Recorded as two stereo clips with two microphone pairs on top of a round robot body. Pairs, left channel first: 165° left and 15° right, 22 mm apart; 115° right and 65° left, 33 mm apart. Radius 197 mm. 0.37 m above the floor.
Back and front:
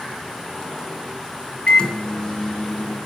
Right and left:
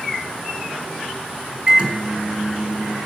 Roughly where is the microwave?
Behind left.